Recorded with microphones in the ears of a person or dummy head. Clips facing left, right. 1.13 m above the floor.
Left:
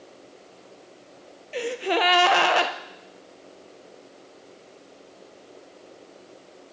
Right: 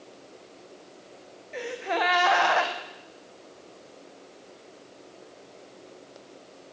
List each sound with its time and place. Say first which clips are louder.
1.5 s a gasp: left 4 dB; 40° left (ahead or behind), 0.6 m